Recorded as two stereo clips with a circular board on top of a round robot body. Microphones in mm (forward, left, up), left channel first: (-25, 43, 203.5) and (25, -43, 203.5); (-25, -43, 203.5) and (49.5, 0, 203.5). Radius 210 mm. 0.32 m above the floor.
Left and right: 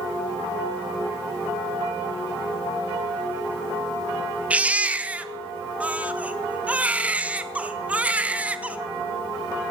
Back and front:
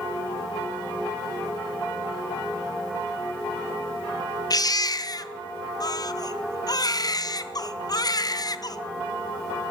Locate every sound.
4.5 s a baby crying: 130° right, 1.0 m